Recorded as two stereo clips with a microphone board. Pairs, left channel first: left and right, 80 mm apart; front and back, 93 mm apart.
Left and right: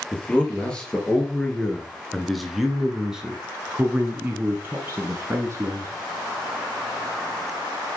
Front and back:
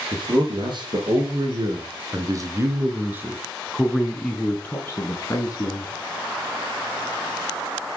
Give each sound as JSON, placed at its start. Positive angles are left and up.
{"t": 0.1, "sound": "a man speaking", "azimuth_deg": 165, "distance_m": 3.0}